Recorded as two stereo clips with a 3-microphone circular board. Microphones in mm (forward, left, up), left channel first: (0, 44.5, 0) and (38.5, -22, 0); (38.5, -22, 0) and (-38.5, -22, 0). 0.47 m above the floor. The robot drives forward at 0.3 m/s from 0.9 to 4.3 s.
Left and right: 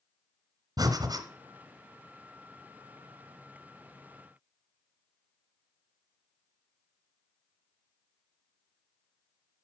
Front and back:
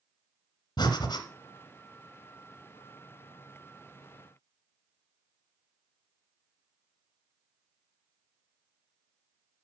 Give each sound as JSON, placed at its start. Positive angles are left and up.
{"t": 0.8, "sound": "breathing", "azimuth_deg": -25, "distance_m": 1.3}